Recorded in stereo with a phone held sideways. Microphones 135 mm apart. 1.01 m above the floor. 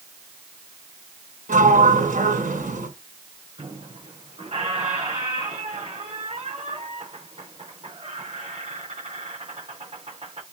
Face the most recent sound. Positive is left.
turn(degrees=-45)  # may be behind; listen again after turning